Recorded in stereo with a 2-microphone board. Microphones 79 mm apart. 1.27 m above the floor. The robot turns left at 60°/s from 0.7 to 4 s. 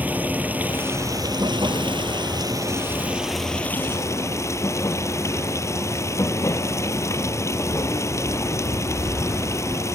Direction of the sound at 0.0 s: 20° right.